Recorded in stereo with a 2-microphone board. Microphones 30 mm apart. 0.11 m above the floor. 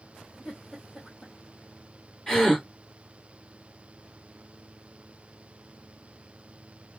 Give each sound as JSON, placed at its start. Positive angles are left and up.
{"t": 0.5, "sound": "a giggle", "side_deg": 5, "distance_m": 4.0}
{"t": 2.3, "sound": "a gasp", "side_deg": 15, "distance_m": 2.5}